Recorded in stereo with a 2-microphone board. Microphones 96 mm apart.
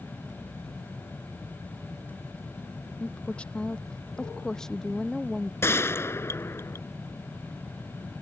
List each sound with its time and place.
3.0 s a woman speaking: 15° left (ahead or behind); by 5.5 s 5° left (ahead or behind)
5.6 s a gunshot: 30° left (ahead or behind)